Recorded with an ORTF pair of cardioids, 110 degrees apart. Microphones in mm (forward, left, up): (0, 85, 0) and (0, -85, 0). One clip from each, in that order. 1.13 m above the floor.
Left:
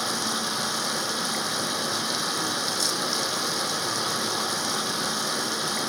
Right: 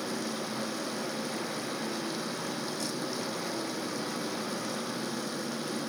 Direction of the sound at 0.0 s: 70° left.